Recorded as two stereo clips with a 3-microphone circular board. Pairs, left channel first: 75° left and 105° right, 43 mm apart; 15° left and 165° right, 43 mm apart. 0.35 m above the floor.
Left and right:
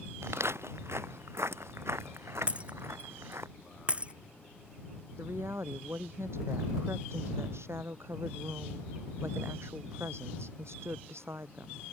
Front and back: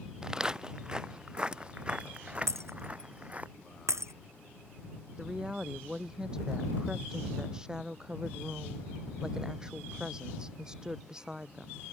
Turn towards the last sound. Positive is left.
turn(degrees=-90)